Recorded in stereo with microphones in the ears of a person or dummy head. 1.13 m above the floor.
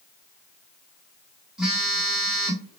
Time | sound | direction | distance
1.6 | a phone buzzing | 5° right (ahead or behind) | 0.8 m